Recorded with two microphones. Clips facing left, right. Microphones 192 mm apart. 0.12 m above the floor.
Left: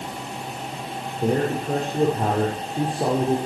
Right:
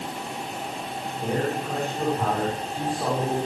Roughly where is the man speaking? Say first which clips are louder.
Left 5 dB; left.